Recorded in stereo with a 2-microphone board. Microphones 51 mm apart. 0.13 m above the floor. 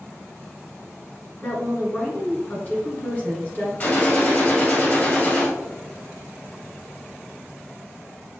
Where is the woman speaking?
35° left (ahead or behind), 1.9 m.